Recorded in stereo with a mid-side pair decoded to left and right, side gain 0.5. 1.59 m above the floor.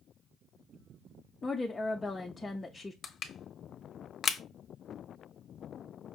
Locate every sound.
1.4 s a woman speaking: 20° left, 0.6 m
3.0 s crushing: 50° left, 0.7 m